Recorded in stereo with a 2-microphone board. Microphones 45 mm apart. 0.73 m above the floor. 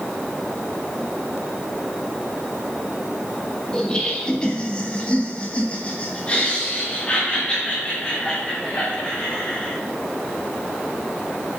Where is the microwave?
No microwave in this recording.